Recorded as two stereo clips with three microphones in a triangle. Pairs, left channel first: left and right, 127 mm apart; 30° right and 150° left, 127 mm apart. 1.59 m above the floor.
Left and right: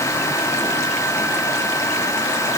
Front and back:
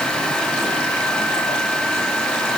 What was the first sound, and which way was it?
Only background noise.